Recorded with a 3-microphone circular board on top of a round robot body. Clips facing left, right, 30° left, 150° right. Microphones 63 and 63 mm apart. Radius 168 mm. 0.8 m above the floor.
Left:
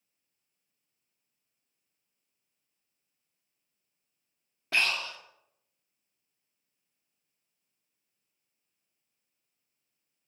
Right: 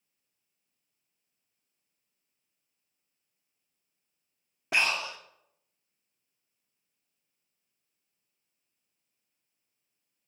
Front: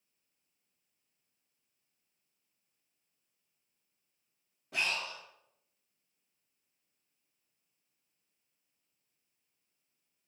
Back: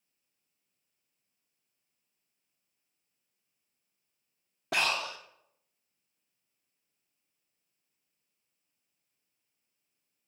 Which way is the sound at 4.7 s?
165° right.